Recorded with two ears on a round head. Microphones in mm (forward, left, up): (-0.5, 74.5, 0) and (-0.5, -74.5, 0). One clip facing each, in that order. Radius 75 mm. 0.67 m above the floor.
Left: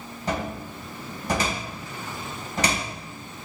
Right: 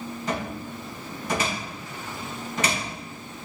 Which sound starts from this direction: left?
A cupboard door, at 0.3 s.